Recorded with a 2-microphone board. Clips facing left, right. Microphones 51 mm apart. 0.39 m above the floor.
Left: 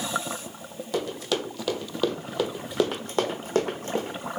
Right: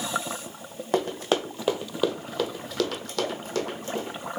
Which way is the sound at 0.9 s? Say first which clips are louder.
Right 3 dB; 50° right (ahead or behind).